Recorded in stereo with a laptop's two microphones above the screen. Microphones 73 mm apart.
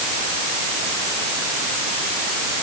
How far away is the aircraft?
No aircraft in this recording.